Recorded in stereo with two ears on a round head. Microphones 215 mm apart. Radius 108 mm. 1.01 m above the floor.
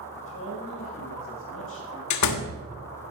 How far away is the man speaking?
About 6.5 m.